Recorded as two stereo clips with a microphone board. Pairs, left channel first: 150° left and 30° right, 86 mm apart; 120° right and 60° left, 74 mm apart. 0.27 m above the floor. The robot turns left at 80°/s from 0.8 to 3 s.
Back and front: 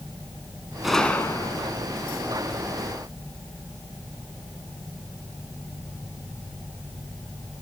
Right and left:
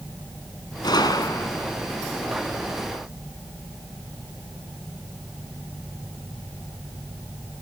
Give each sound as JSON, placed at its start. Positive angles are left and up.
{"t": 0.8, "sound": "a gunshot", "azimuth_deg": -115, "distance_m": 1.6}